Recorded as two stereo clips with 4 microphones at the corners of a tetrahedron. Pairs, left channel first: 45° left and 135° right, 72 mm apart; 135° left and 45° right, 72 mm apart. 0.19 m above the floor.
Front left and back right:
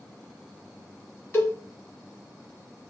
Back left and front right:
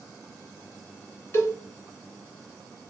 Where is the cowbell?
95° left, 2 m.